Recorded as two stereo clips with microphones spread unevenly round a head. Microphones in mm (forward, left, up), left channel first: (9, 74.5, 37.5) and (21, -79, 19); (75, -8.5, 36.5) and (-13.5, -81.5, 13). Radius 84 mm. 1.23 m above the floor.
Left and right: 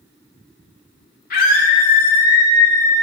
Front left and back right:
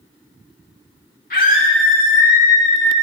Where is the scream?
65° left, 3 m; by 3.0 s 20° left, 3 m.